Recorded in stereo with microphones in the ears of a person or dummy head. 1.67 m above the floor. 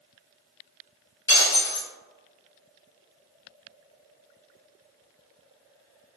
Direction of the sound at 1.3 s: 20° left (ahead or behind).